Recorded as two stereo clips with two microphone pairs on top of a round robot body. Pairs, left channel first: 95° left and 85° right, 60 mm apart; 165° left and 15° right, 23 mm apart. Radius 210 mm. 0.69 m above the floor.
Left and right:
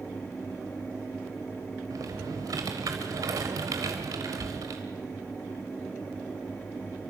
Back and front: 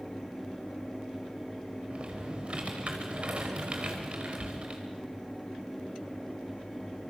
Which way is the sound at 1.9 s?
50° right.